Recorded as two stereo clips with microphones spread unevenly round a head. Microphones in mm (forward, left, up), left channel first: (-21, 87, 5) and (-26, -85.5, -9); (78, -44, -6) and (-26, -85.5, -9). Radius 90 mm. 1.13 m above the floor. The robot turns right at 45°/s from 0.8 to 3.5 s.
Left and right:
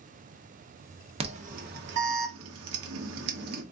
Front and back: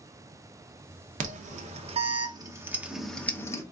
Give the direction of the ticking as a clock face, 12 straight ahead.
I don't hear ticking.